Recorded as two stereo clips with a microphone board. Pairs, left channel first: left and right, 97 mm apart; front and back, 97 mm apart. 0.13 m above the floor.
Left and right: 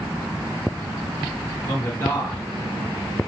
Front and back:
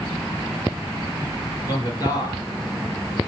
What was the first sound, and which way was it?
A man speaking, 30° left.